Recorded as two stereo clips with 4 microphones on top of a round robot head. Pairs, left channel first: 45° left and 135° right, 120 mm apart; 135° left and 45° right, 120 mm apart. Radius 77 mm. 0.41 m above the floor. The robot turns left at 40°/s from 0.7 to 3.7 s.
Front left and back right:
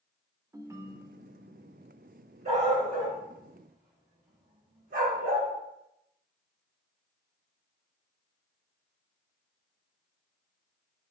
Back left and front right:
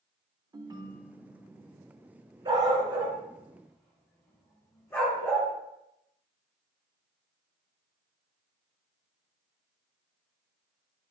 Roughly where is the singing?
I don't hear singing.